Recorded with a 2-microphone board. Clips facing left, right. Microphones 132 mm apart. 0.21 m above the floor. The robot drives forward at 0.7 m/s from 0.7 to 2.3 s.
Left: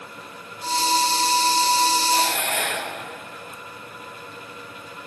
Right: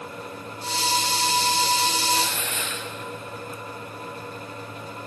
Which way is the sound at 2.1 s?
65° left (ahead or behind).